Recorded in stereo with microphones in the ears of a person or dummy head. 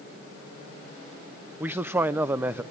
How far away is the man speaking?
About 0.5 m.